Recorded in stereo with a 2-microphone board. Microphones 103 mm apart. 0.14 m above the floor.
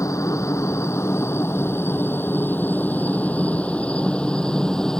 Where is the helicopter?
30° left (ahead or behind); by 5.0 s 5° left (ahead or behind).